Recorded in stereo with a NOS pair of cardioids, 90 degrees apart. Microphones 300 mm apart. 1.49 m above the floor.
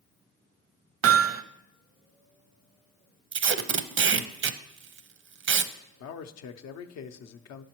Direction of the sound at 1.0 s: 50° right.